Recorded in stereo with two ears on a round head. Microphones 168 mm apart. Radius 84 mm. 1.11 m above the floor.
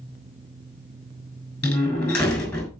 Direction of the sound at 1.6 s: 5° left (ahead or behind).